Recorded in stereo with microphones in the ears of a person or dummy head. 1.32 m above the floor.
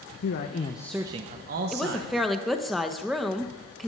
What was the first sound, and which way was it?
A man speaking, 60° left (ahead or behind).